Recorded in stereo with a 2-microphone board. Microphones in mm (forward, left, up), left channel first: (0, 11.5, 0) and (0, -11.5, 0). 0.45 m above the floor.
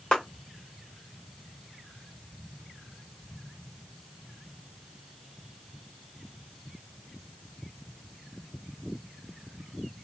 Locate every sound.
0.1 s a clap: 35° left (ahead or behind), 1.4 m